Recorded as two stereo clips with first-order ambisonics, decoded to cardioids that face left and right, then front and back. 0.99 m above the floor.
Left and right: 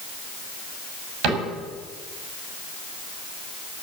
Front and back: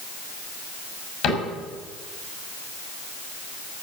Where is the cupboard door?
50° right, 6 m.